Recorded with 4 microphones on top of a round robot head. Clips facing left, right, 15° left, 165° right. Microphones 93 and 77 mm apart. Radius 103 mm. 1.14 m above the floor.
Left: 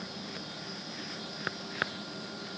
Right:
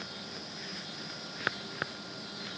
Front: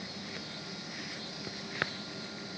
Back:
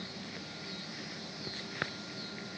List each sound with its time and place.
Only background noise.